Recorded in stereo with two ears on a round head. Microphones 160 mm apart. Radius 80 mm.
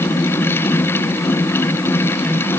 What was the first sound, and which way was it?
Only background noise.